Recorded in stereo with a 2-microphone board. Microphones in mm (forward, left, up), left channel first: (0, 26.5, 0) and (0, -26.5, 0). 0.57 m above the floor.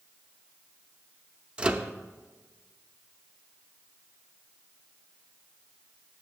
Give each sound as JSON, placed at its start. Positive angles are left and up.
{"t": 1.6, "sound": "a microwave", "side_deg": -20, "distance_m": 0.5}